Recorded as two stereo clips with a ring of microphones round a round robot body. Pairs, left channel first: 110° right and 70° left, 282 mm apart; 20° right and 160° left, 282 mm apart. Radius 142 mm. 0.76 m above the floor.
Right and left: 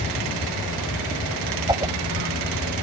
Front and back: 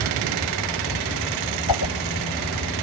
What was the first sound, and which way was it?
A whoosh, 10° right.